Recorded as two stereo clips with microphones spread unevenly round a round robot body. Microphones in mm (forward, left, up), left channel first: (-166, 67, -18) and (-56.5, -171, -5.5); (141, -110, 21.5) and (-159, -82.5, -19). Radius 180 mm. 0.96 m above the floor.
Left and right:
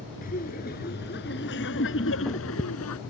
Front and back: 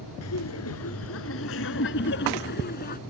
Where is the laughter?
45° left; by 3.0 s 60° left.